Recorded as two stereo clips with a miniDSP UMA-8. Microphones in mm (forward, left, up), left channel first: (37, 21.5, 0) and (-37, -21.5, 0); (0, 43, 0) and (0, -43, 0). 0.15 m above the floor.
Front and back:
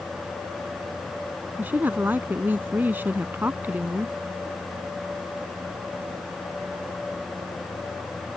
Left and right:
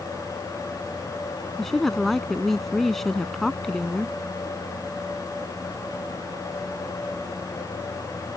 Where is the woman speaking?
175° left.